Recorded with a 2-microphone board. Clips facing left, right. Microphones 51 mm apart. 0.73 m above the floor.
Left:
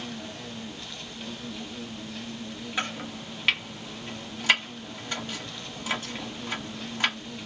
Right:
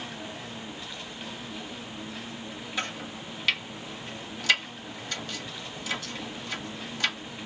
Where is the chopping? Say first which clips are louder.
Left 2 dB; 30° left (ahead or behind), 1.1 m.